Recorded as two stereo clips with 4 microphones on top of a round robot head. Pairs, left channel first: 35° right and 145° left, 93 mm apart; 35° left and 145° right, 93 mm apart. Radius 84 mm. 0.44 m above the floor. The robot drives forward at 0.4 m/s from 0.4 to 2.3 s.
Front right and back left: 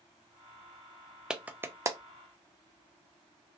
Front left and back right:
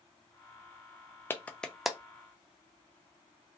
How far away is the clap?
About 0.5 m.